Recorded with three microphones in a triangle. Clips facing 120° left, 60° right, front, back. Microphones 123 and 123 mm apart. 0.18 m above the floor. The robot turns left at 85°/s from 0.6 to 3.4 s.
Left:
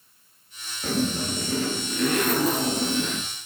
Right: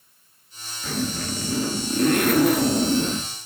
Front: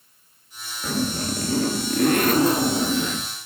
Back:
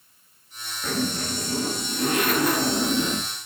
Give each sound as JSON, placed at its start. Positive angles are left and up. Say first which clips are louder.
{"t": 0.8, "sound": "a zipper", "louder": "left 2 dB, front 2 dB", "azimuth_deg": 85, "distance_m": 2.0}